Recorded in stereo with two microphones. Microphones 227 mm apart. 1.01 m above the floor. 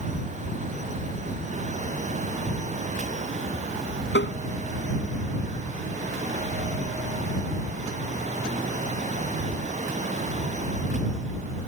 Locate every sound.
4.1 s tapping: 55° left (ahead or behind)